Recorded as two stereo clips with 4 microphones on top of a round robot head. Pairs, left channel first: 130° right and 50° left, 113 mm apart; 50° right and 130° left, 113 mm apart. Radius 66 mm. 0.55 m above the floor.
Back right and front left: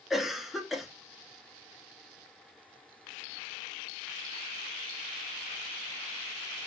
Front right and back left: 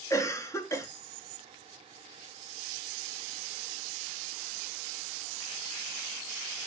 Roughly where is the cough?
Ahead right.